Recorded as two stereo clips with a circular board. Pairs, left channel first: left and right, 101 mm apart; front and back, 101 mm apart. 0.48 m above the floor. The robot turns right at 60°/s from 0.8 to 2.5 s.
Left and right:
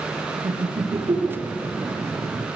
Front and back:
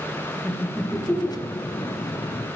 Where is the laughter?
100° right, 7 m; by 1.9 s 35° right, 7 m.